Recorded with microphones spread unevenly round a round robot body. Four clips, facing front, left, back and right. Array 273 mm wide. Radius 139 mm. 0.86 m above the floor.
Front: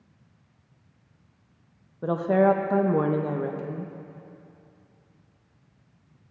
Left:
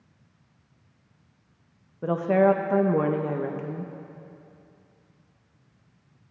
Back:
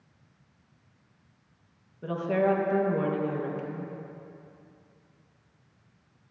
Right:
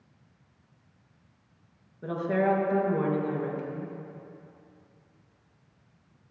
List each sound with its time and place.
2.0 s a woman speaking: 45° left, 0.7 m